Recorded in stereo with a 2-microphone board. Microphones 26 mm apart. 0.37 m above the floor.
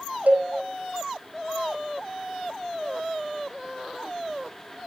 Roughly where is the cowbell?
Right.